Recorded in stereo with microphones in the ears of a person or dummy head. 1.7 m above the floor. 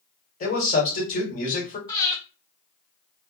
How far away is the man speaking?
About 1.3 m.